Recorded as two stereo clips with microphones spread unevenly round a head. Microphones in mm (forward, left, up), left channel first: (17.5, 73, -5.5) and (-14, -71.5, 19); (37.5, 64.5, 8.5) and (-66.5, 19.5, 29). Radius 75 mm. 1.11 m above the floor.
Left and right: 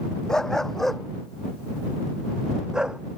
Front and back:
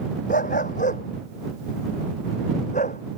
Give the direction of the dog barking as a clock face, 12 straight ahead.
12 o'clock.